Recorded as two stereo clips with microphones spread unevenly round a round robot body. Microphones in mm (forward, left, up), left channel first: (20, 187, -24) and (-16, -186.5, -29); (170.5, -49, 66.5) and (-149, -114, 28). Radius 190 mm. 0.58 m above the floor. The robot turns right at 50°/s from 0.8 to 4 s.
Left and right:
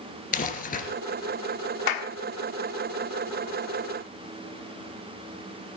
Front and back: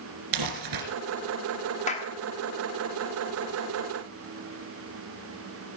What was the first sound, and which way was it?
Crumpling, 155° left.